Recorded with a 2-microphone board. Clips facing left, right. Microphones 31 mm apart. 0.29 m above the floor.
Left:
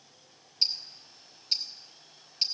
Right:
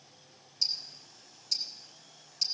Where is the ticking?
40° left (ahead or behind), 1.2 m.